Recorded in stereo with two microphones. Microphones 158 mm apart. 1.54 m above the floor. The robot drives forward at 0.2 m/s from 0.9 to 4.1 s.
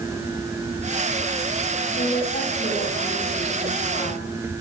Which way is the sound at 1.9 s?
70° left (ahead or behind).